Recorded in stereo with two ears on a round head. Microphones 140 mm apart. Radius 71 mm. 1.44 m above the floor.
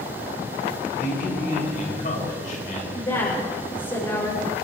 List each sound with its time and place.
1.0 s a man speaking: 50° left (ahead or behind), 6.5 m
2.9 s a woman speaking: 30° left (ahead or behind), 6 m